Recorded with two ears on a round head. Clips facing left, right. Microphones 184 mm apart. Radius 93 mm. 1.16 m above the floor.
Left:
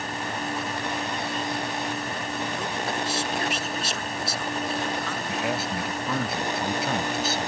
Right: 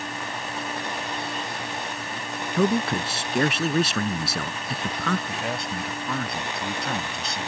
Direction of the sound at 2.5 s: 50° right (ahead or behind).